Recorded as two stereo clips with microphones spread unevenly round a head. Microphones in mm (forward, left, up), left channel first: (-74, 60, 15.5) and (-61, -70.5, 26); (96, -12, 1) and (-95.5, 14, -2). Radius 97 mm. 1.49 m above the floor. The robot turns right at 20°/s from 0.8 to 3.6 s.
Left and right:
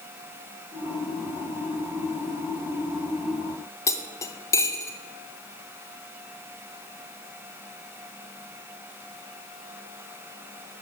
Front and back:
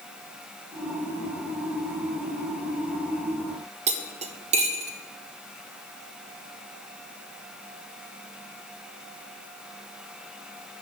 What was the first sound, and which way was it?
Cutlery clinking, 155° left.